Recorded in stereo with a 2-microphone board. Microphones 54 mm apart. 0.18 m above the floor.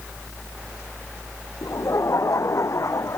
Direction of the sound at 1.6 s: 80° left.